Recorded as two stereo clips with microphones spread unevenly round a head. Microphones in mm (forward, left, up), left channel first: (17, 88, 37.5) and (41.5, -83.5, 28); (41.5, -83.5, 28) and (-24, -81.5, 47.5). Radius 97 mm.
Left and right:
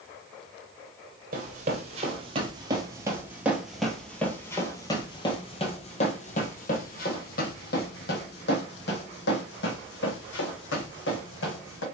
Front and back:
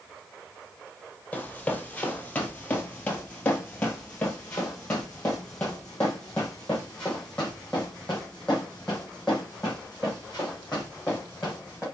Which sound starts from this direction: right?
Running footsteps, at 1.3 s.